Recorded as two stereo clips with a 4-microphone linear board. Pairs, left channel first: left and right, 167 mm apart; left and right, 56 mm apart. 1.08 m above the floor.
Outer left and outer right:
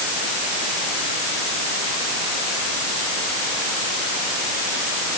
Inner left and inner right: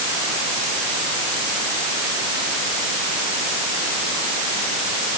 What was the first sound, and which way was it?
Only background noise.